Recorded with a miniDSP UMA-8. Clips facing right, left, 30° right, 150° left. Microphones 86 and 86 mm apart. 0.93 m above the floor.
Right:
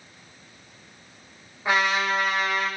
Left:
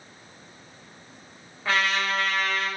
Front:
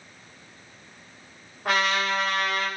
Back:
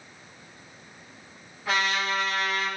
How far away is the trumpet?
About 5 m.